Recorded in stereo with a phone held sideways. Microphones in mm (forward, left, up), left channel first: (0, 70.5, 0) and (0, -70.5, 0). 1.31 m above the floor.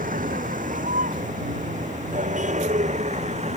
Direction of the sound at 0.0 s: 75° right (ahead or behind).